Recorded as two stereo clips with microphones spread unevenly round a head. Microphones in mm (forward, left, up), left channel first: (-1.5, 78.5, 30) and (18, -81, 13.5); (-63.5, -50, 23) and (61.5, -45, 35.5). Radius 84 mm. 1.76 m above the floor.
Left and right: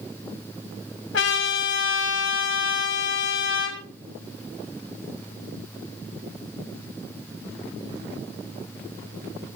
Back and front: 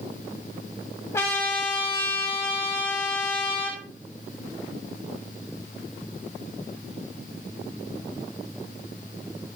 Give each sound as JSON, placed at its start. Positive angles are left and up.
{"t": 1.1, "sound": "a trumpet", "azimuth_deg": 110, "distance_m": 6.0}